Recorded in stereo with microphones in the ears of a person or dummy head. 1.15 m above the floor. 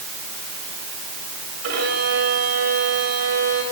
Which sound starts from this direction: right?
A violin, at 1.6 s.